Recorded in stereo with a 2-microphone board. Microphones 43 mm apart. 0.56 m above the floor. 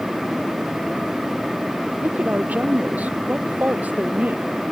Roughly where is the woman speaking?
Right.